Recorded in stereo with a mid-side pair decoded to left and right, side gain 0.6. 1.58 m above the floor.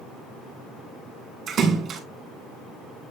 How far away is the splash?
About 3 m.